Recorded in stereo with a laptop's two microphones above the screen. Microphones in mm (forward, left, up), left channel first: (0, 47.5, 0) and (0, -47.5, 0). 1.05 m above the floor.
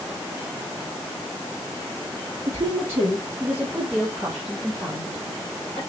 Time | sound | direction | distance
2.5 | a woman speaking | 30° right (ahead or behind) | 2.5 m